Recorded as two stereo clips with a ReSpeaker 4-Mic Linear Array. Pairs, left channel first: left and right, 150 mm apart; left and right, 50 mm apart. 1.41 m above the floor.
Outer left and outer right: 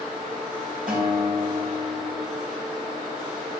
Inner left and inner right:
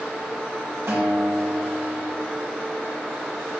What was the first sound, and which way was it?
A guitar, 70° right (ahead or behind).